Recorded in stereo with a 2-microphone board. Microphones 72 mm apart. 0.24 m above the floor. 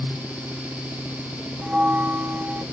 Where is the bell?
10° right (ahead or behind), 1.0 m.